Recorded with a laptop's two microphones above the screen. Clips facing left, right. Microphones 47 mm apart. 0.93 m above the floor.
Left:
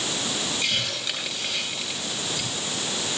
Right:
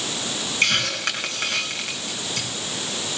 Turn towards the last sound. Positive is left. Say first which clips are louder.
# right 10 dB
turn(degrees=-60)  # may be behind; listen again after turning